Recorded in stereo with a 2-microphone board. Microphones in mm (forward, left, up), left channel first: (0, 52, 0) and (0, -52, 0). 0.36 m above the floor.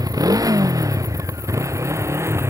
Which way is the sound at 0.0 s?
35° right (ahead or behind).